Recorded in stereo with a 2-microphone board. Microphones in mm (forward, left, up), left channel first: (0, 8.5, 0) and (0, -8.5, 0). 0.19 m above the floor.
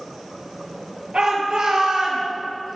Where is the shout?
60° right (ahead or behind), 5 m; by 2.2 s 65° right (ahead or behind), 3.5 m.